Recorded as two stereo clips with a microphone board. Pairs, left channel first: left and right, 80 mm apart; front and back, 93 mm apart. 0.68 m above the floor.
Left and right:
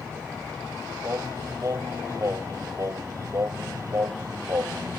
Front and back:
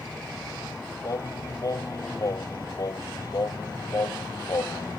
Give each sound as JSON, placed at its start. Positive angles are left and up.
{"t": 1.0, "sound": "singing", "azimuth_deg": -45}